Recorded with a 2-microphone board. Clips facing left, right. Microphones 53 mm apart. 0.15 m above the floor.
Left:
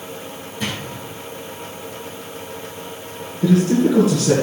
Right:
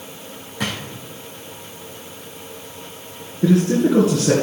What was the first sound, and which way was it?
A drawer, 85° right.